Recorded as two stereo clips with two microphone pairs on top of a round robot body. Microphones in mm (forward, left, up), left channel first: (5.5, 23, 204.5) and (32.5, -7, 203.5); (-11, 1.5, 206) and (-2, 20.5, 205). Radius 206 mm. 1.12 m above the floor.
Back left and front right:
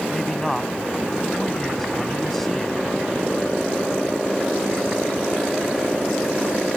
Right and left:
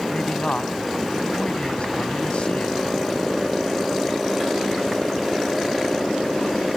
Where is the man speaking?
145° right.